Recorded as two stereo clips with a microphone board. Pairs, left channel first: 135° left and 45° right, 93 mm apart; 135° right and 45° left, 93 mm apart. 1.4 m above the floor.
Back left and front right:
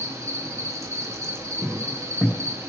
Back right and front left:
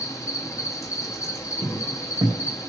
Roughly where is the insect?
Right.